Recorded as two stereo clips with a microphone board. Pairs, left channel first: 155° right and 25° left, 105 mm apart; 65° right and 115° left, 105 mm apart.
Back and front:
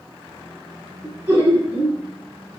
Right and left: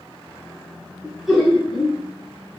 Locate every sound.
1.0 s laughter: 30° left, 1.1 m